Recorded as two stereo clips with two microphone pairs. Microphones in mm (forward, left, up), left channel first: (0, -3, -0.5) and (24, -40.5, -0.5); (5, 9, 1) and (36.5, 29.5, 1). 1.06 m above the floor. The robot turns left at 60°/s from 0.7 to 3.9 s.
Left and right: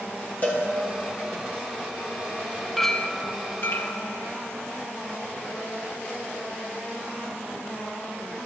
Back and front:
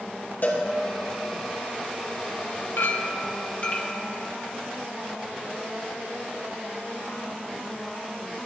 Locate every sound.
0.4 s a cowbell: straight behind, 2.5 m
2.8 s a clink: 140° right, 0.9 m; by 4.0 s 150° left, 0.9 m